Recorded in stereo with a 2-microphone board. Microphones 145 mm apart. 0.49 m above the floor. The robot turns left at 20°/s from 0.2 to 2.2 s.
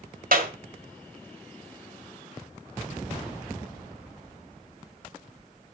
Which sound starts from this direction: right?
A clap, at 0.3 s.